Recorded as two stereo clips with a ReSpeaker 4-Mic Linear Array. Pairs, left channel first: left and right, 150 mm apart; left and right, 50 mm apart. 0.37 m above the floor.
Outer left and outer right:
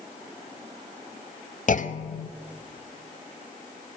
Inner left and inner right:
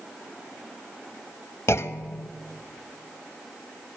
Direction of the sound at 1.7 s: 60° left (ahead or behind).